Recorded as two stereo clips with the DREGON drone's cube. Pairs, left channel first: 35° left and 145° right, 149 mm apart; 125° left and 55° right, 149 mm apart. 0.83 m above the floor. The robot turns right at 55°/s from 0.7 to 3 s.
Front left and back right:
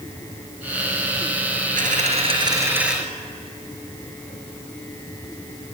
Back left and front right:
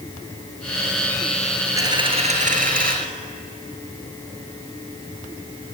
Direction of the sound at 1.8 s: 125° right.